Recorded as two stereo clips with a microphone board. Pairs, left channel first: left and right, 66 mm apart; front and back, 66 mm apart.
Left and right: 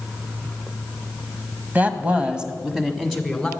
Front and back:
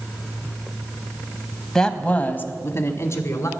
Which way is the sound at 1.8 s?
70° right.